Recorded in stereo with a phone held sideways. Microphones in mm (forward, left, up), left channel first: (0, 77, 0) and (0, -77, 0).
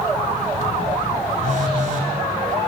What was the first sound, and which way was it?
A phone buzzing, 55° right (ahead or behind).